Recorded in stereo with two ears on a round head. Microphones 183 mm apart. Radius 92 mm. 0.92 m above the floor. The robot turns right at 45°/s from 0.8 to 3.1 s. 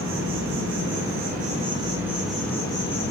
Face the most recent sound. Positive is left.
turn(degrees=35)